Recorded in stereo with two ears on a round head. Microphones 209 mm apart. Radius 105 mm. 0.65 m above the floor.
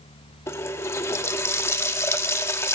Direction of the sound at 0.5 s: 10° left (ahead or behind).